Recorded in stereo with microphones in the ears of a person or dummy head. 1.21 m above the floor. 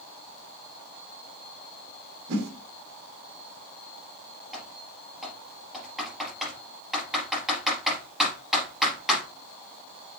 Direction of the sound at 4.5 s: 5° right (ahead or behind).